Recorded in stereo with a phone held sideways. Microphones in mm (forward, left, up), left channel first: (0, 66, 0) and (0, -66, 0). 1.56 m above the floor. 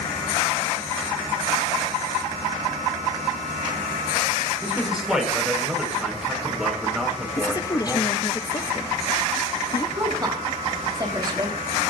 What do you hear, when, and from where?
4.6 s a man speaking: 5° right (ahead or behind), 6 m
7.4 s a woman speaking: 30° left (ahead or behind), 1.1 m
10.0 s a woman speaking: 30° right (ahead or behind), 4.5 m